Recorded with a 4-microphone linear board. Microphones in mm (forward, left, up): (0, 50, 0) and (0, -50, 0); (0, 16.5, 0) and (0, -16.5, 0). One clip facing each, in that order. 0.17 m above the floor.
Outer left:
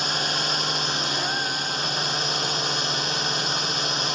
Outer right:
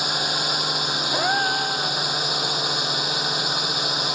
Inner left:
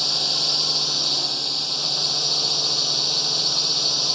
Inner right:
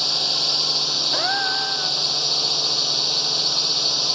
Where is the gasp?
70° right (ahead or behind).